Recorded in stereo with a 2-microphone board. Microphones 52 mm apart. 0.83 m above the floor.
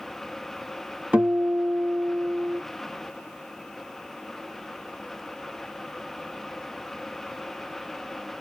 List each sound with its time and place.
1.1 s a guitar: 25° right (ahead or behind), 1.4 m